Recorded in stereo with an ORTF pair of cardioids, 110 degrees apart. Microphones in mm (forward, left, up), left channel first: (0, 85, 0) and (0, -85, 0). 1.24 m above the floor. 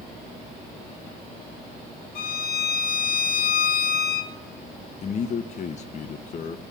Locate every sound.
2.1 s a violin: 65° left, 2 m
5.0 s a man speaking: 45° left, 0.9 m